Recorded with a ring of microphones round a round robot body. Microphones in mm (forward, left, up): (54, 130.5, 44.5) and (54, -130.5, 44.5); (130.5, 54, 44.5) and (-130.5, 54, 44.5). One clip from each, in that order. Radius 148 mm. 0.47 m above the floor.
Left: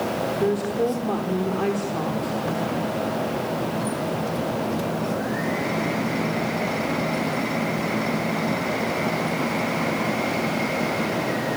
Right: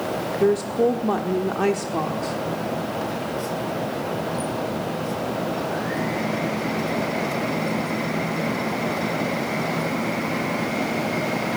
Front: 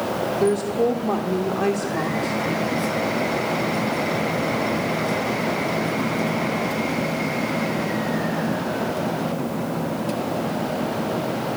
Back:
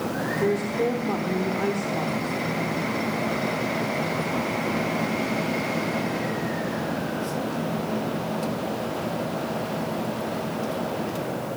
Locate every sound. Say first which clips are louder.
0.4 s a woman speaking: right 5 dB, front 4 dB; 65° right, 1.2 m